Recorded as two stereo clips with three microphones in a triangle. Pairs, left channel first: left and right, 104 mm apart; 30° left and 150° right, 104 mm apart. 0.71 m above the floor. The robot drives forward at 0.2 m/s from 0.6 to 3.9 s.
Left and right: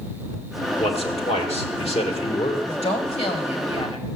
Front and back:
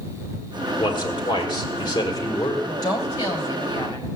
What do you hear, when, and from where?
0.8 s a man speaking: 75° left, 2.5 m; by 2.6 s 80° left, 2.5 m
2.7 s a woman speaking: 80° left, 2.5 m; by 4.1 s 85° left, 2.5 m